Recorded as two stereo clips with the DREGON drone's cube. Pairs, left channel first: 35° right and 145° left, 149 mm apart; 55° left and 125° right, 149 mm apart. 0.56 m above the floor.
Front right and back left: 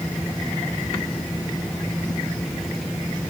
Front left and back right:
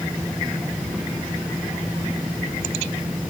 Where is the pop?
No pop in this recording.